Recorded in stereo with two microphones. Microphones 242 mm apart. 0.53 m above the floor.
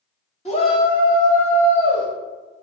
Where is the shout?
25° left (ahead or behind), 1.1 m; by 2.1 s 5° left (ahead or behind), 3 m.